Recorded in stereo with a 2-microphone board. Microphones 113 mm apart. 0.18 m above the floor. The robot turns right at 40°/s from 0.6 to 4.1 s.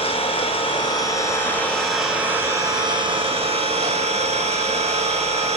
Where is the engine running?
130° left, 5 m; by 5.6 s 90° right, 5 m.